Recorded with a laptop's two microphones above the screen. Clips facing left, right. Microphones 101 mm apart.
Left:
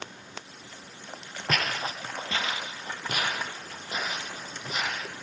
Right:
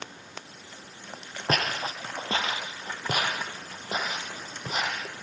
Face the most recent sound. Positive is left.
turn(degrees=-40)  # may be behind; listen again after turning